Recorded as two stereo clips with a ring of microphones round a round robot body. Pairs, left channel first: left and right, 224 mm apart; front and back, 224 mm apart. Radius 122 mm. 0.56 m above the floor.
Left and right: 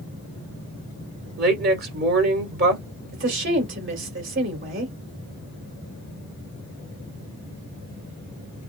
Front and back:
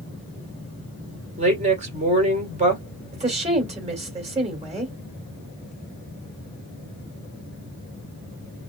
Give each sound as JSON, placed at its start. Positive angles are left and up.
{"t": 1.4, "sound": "a woman speaking", "azimuth_deg": -125, "distance_m": 2.5}
{"t": 3.1, "sound": "a woman speaking", "azimuth_deg": -120, "distance_m": 2.5}